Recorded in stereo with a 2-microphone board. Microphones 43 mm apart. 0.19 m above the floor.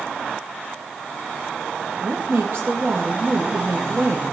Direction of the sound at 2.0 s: 60° right (ahead or behind).